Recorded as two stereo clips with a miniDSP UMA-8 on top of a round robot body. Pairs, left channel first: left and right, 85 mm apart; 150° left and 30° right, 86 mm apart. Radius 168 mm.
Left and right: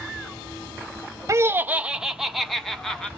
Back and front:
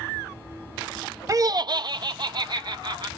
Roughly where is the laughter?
Ahead right.